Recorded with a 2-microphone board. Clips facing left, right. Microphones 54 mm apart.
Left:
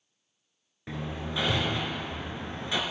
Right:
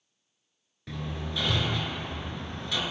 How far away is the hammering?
About 1.1 m.